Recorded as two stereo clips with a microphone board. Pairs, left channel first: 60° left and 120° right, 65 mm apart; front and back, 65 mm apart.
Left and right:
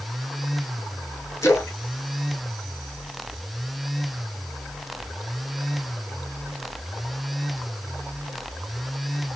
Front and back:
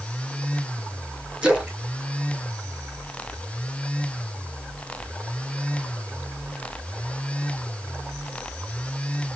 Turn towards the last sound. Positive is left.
turn(degrees=100)